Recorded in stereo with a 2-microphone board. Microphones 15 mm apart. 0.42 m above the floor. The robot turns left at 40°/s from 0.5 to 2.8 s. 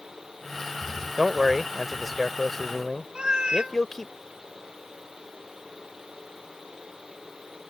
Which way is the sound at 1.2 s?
145° right.